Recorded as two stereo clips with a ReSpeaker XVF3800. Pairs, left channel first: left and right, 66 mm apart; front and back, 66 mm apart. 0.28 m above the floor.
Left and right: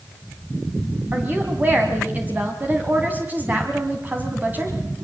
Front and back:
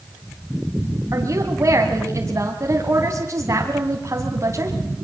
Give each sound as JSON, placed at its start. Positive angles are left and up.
{"t": 1.1, "sound": "a woman speaking", "azimuth_deg": -145, "distance_m": 2.0}